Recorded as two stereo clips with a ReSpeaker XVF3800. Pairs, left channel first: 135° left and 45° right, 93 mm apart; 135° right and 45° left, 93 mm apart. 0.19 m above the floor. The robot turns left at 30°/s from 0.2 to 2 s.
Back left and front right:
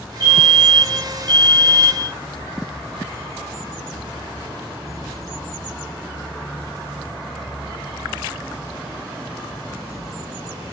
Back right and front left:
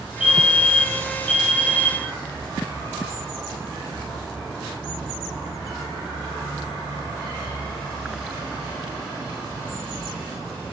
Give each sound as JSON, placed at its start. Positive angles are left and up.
{"t": 0.2, "sound": "a fire alarm", "azimuth_deg": -25, "distance_m": 3.5}